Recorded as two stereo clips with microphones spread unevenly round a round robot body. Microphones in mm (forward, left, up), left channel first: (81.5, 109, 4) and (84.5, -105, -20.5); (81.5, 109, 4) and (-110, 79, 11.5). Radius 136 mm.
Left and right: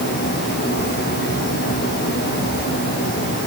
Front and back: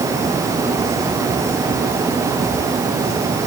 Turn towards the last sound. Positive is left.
No sound to turn to.